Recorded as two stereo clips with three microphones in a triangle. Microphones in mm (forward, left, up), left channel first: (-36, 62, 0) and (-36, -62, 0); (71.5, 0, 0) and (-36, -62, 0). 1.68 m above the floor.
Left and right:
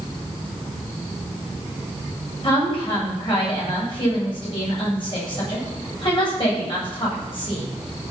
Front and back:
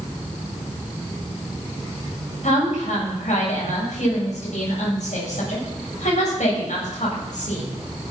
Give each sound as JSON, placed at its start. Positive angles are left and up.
{"t": 2.4, "sound": "a woman speaking", "azimuth_deg": 45, "distance_m": 7.5}